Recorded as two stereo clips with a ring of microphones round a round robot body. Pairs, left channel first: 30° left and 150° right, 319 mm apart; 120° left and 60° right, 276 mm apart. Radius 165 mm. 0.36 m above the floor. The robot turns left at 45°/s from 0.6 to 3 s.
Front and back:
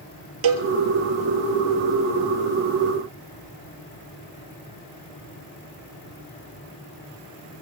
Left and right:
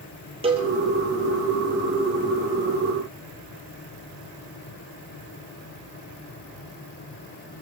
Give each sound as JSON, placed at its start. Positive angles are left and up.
{"t": 0.4, "sound": "a cowbell", "azimuth_deg": -135, "distance_m": 1.7}